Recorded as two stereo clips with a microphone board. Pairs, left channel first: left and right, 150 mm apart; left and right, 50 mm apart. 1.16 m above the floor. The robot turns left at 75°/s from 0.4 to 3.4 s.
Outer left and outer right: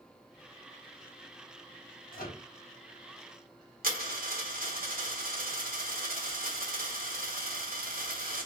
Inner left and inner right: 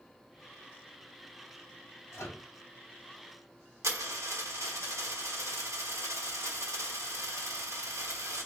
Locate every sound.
2.1 s a microwave: 70° left (ahead or behind), 1.8 m; by 2.4 s 50° left (ahead or behind), 1.8 m
3.8 s a dropped coin: 75° right (ahead or behind), 2 m